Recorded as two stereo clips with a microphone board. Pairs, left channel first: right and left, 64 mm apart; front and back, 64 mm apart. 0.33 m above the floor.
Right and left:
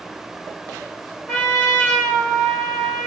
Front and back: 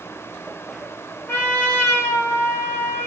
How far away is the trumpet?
About 1.5 m.